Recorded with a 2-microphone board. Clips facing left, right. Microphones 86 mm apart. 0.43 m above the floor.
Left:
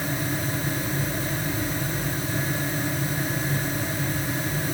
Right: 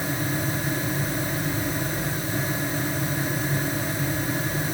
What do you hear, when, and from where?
Only background noise.